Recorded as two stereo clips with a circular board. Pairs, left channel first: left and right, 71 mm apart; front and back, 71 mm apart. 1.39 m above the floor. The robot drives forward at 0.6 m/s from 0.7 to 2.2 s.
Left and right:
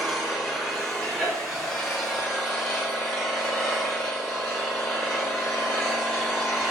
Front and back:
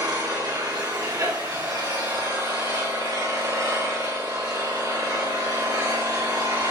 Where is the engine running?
175° right, 2.5 m.